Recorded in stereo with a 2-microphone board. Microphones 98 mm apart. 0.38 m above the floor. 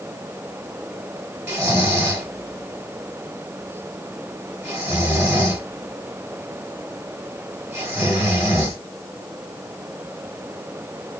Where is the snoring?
25° right (ahead or behind), 1.6 m.